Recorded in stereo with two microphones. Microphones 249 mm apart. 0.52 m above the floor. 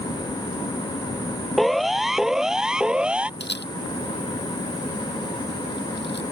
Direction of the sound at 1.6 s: Centre (ahead or behind).